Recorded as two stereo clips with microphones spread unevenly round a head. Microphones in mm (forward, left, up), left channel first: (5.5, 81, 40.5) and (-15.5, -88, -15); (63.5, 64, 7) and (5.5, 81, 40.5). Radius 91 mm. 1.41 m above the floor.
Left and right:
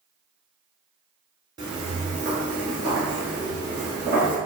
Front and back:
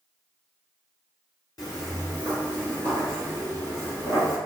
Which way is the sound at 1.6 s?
10° right.